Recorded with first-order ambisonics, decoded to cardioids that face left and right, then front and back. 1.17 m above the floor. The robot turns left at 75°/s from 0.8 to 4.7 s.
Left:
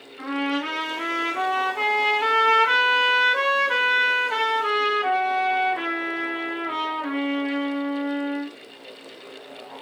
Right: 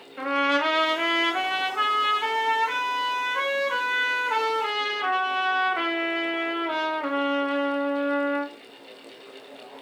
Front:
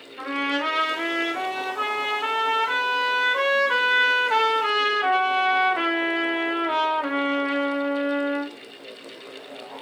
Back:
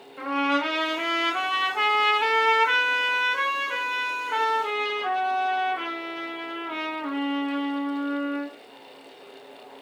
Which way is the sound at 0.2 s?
95° right.